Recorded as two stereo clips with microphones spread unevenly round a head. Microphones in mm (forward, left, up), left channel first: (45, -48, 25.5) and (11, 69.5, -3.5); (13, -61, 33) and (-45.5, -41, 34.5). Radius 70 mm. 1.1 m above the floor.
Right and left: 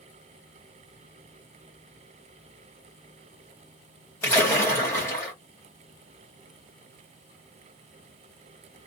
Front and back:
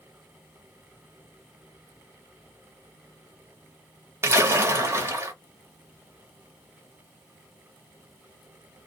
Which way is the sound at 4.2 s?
150° right.